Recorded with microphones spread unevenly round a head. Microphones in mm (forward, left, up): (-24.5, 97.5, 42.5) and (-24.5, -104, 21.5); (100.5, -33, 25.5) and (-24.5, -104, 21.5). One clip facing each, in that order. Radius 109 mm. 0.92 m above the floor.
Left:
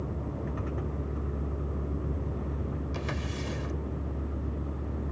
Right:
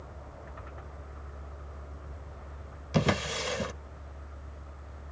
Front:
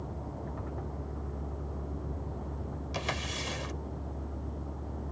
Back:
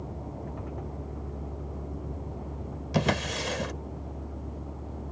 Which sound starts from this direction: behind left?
A vehicle, at 0.0 s.